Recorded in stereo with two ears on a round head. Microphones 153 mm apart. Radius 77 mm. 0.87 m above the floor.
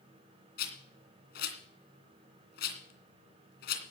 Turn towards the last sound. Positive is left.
turn(degrees=65)  # may be behind; listen again after turning